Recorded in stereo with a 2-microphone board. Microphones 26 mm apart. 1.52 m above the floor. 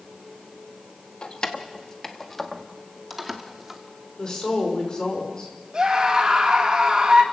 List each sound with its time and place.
1.2 s keys jangling: 35° left (ahead or behind), 1.5 m; by 3.8 s 15° right (ahead or behind), 2 m
4.2 s a woman speaking: 30° left (ahead or behind), 5.5 m
5.7 s a scream: 30° right (ahead or behind), 3 m